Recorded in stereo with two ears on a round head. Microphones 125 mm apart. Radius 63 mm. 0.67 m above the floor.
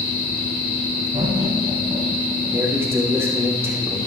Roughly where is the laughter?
Right.